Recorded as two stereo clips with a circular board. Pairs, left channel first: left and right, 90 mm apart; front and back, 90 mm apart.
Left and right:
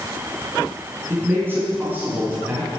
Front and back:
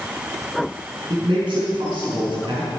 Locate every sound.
1.1 s a man speaking: 155° right, 5.5 m